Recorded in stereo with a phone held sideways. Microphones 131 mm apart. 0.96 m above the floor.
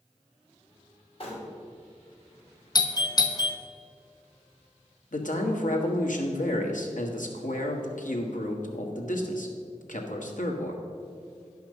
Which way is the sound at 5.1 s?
80° left.